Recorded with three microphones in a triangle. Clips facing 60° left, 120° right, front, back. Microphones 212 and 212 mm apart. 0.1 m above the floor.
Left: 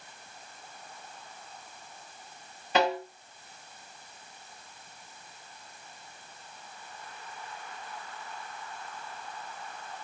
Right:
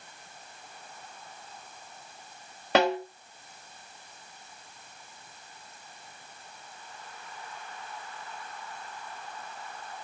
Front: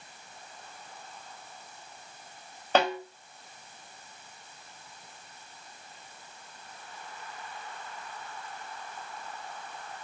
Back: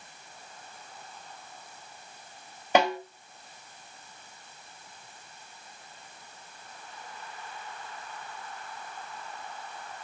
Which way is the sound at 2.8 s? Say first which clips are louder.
Right 3 dB, back 2 dB; 100° right.